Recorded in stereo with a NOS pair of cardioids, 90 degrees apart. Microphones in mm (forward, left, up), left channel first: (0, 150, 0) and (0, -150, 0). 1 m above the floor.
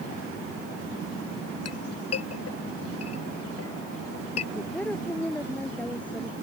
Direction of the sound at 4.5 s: 5° left.